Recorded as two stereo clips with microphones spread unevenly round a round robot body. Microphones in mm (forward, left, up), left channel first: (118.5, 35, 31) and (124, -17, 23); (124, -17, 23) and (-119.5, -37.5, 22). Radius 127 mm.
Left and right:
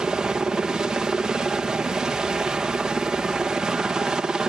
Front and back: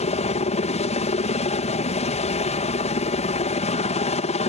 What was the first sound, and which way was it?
A helicopter, 30° right.